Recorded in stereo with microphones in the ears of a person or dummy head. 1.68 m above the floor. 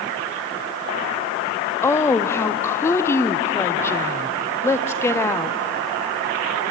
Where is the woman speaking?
15° left (ahead or behind), 0.7 m.